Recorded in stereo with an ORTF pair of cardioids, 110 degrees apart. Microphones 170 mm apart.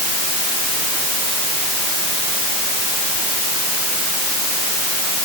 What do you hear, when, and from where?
Only background noise.